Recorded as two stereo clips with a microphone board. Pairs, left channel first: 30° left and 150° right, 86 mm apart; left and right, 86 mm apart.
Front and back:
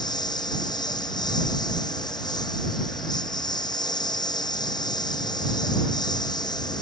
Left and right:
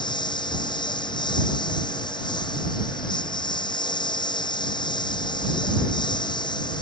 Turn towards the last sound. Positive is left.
turn(degrees=65)